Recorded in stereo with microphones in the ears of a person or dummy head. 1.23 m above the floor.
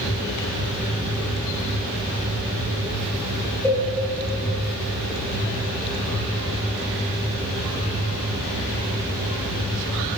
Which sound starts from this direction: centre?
A cowbell, at 3.6 s.